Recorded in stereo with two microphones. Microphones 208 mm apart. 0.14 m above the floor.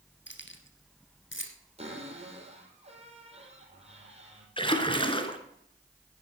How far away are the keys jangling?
About 1.9 m.